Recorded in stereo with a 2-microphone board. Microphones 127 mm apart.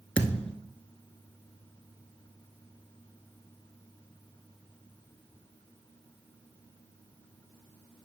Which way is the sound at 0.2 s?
5° left (ahead or behind).